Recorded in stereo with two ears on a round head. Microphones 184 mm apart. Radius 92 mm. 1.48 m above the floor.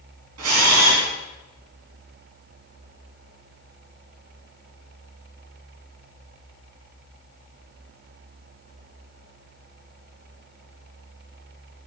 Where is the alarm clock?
I don't hear an alarm clock.